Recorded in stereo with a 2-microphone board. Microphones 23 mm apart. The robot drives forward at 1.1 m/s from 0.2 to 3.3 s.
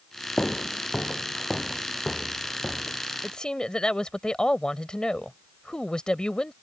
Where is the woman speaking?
35° left (ahead or behind).